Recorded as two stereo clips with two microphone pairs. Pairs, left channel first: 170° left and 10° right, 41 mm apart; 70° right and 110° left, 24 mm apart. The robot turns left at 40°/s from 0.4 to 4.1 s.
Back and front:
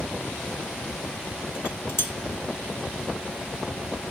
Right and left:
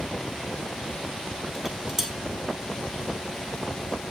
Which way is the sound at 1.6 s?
155° right.